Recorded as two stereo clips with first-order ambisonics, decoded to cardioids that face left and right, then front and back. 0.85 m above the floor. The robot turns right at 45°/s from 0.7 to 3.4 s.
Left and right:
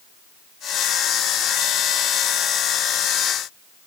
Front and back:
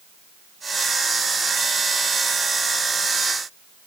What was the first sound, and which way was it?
Only background noise.